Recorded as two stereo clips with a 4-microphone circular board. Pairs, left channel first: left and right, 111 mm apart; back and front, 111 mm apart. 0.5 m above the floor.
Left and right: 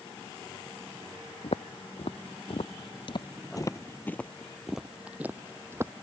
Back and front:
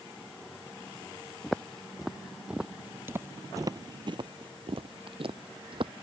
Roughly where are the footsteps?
Left.